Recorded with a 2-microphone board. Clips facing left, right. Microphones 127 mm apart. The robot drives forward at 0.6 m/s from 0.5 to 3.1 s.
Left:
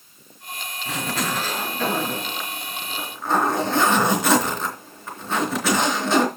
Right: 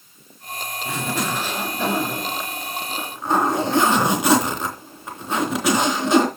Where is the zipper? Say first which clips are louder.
Right 1 dB; 10° right (ahead or behind), 5 m; by 6.3 s 15° right (ahead or behind), 3.5 m.